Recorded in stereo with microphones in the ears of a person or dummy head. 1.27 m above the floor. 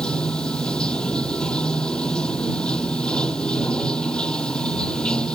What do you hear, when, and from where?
0.0 s running water: 5° left (ahead or behind)